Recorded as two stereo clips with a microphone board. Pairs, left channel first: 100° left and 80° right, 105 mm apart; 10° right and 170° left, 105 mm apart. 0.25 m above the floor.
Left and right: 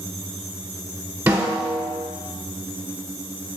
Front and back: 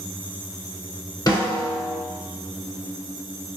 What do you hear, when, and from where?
1.3 s a snare drum: 25° right, 1.3 m